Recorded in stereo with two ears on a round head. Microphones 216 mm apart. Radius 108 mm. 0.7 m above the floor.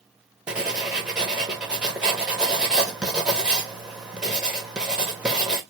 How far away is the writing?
About 1.0 m.